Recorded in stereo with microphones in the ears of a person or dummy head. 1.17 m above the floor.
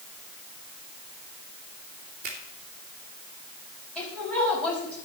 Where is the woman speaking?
5° left (ahead or behind), 6 m.